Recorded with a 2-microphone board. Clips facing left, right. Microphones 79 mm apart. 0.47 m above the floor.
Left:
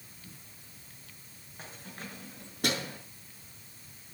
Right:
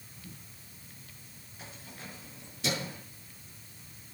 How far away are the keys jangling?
About 5.5 m.